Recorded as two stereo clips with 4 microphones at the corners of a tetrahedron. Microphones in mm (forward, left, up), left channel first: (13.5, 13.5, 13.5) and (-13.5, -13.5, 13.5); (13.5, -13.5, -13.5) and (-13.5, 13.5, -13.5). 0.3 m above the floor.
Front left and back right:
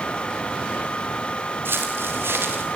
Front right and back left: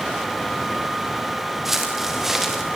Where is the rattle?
No rattle in this recording.